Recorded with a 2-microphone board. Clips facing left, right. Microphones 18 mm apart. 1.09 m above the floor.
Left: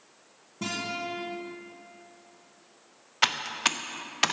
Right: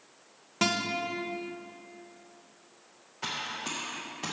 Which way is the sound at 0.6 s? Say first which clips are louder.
Right 4 dB; 60° right (ahead or behind).